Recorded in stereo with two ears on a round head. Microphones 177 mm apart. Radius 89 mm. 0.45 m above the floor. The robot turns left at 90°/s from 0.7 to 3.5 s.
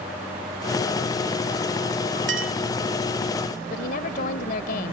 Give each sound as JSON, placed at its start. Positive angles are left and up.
{"t": 2.3, "sound": "a clink", "side_deg": -55}
{"t": 3.7, "sound": "a woman speaking", "side_deg": 50}